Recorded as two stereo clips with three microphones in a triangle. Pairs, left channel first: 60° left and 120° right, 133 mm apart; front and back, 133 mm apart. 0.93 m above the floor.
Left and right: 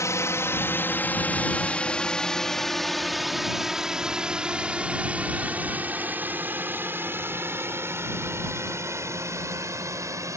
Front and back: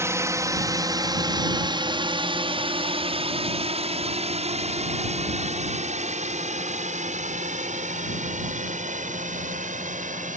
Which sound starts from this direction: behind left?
A drone, at 0.0 s.